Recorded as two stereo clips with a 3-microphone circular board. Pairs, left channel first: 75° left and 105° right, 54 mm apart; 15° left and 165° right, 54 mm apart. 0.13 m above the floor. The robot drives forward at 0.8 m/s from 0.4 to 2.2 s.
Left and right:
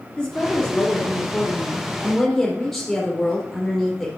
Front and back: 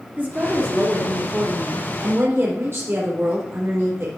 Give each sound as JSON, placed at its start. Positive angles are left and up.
{"t": 0.2, "sound": "a woman speaking", "azimuth_deg": 145, "distance_m": 3.0}